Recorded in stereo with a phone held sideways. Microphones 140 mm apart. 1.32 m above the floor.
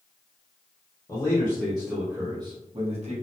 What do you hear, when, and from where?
1.1 s a man speaking: 25° left (ahead or behind), 0.9 m; by 3.1 s 50° right (ahead or behind), 0.9 m